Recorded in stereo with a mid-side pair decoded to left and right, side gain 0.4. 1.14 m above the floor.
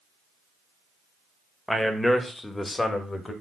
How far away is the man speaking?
About 1.5 m.